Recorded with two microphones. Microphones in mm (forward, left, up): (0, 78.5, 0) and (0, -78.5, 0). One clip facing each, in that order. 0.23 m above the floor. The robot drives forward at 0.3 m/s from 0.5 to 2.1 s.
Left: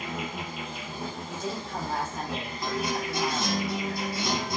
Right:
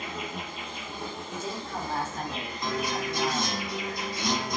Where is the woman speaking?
10° left (ahead or behind), 1.4 m.